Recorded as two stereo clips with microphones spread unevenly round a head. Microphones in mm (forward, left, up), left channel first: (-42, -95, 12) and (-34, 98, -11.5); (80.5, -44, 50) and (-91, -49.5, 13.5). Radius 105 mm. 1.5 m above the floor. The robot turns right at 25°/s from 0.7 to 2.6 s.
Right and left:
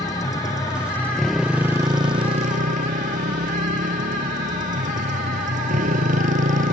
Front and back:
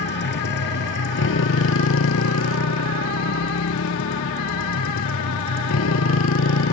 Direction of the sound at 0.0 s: 20° right.